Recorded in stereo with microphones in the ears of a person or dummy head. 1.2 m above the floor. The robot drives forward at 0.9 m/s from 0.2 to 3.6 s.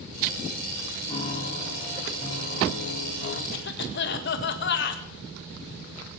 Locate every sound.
1.1 s a piano: 35° left (ahead or behind), 4.5 m; by 3.4 s 60° left (ahead or behind), 3 m
3.5 s a cough: 55° left (ahead or behind), 1.7 m